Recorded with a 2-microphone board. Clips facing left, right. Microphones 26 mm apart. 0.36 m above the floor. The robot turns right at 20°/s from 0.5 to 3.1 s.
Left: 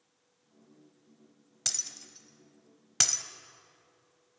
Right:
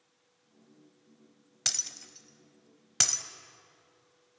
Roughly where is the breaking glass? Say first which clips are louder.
Right 2 dB; right.